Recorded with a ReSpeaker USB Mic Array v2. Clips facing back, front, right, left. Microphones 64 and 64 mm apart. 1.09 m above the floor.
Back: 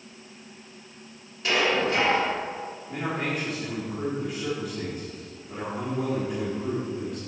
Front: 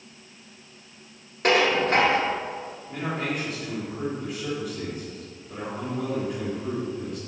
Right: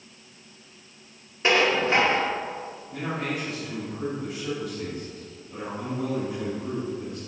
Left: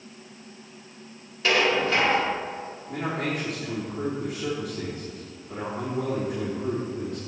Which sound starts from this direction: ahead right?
Dishes clattering, at 1.4 s.